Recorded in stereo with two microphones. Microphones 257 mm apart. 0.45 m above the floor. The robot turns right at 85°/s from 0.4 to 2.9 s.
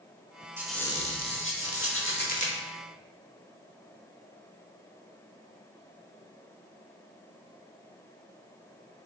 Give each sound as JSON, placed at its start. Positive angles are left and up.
{"t": 0.6, "sound": "a squeak", "azimuth_deg": -10, "distance_m": 0.9}